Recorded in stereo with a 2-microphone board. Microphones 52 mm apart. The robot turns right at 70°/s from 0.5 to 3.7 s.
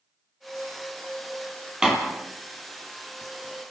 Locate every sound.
1.8 s a door slam: 15° right (ahead or behind), 3.5 m; by 2.0 s 5° right (ahead or behind), 3.5 m